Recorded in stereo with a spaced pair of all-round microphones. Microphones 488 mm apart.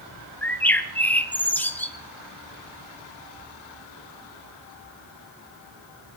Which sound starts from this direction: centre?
A bird, at 0.4 s.